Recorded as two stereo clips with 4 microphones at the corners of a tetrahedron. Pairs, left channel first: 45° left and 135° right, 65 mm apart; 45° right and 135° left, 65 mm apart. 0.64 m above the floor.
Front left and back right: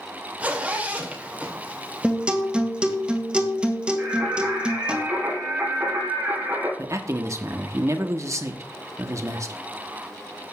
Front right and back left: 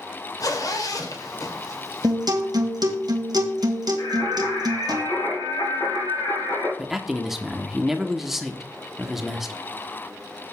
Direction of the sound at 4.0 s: 65° right.